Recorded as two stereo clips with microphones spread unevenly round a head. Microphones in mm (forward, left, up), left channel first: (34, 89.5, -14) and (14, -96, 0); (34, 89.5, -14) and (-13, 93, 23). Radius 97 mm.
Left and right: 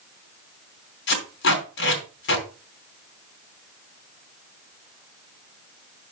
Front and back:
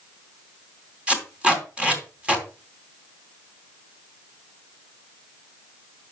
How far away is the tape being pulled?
About 3 m.